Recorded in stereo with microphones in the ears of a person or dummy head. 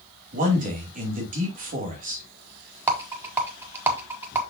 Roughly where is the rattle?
Centre.